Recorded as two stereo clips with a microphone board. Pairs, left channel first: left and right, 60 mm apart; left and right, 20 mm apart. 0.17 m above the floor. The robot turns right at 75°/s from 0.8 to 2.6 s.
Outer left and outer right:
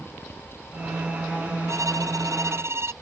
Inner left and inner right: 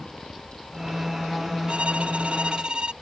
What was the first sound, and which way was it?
A violin, 120° right.